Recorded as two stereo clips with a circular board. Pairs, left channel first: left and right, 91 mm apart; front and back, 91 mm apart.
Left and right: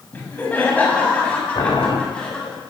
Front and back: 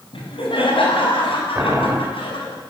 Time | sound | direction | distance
0.1 | laughter | 15° left | 5.5 m
1.6 | boiling | 120° left | 4 m